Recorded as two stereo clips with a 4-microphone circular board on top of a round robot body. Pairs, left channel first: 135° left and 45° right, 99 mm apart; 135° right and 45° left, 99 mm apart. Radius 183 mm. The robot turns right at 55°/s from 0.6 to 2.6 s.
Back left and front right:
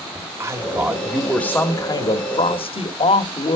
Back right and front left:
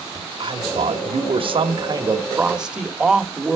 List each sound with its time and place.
0.1 s a man speaking: 15° left, 1.9 m; by 3.6 s 125° left, 1.9 m